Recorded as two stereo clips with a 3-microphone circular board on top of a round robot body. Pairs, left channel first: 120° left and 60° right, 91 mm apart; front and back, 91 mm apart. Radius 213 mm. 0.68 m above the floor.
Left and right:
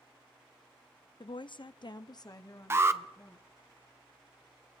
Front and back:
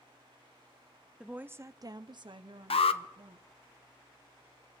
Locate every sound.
1.2 s a woman speaking: 100° left, 0.8 m; by 3.5 s straight behind, 1.5 m
2.7 s an alarm: 5° left, 0.7 m